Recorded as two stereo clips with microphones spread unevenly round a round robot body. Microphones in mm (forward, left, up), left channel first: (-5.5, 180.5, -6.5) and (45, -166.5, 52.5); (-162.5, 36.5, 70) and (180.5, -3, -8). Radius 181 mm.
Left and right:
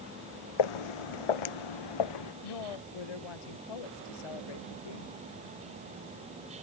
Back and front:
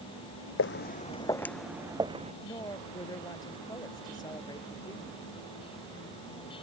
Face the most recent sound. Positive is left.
turn(degrees=95)